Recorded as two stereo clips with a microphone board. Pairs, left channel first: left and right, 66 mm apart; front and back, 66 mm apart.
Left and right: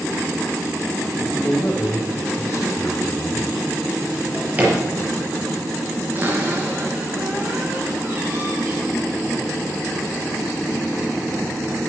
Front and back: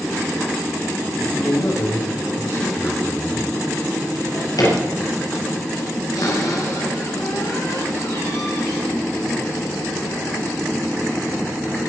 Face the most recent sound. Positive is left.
turn(degrees=-30)